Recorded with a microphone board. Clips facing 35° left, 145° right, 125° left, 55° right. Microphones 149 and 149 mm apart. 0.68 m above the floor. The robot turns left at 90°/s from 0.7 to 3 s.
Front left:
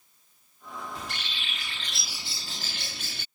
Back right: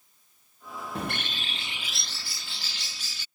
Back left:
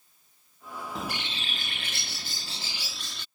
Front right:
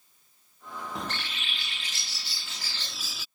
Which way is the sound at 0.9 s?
145° right.